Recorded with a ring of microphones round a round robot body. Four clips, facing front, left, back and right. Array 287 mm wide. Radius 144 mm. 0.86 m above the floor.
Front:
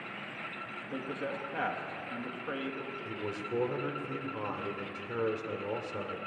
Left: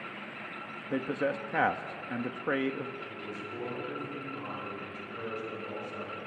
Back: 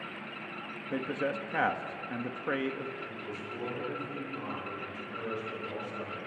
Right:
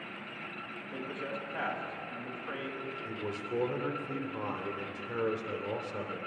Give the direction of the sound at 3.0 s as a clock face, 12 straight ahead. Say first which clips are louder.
Right 3 dB, front 3 dB; 1 o'clock.